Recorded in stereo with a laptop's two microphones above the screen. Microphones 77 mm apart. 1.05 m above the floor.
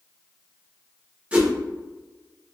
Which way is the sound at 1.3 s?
15° right (ahead or behind).